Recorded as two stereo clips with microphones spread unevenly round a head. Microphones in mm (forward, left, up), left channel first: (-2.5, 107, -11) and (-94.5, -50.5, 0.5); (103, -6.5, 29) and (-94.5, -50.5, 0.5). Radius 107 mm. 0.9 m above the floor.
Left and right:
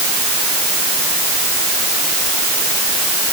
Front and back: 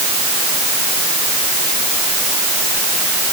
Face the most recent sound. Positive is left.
No sound to turn to.